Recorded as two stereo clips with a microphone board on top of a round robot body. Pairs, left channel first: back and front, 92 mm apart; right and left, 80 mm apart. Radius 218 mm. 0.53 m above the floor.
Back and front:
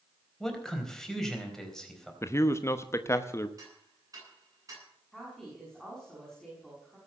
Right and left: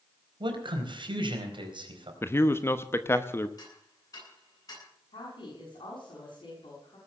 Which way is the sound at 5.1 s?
90° right.